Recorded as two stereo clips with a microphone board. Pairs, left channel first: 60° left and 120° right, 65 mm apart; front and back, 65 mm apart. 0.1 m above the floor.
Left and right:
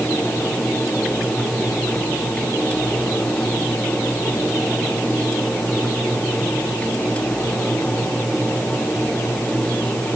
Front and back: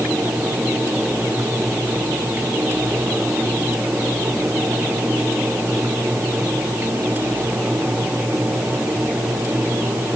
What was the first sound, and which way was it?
Only background noise.